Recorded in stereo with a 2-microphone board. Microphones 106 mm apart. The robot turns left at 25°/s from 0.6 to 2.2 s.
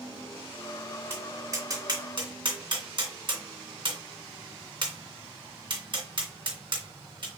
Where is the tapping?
25° right (ahead or behind), 2 m; by 7.3 s 50° right (ahead or behind), 2 m.